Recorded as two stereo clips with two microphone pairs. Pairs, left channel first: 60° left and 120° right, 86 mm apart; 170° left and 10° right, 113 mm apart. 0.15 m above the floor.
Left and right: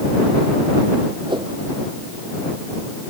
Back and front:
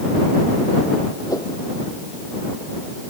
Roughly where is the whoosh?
Behind right.